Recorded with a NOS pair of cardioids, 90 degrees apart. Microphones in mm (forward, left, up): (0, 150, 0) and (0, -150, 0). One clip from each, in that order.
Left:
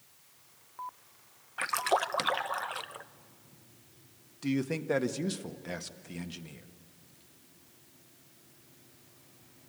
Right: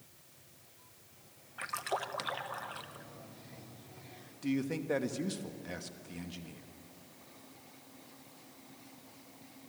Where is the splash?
35° left, 0.6 m.